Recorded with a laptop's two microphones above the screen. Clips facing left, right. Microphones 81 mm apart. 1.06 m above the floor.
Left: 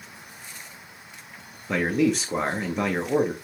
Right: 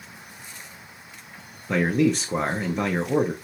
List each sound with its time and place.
1.7 s a man speaking: centre (ahead or behind), 0.6 m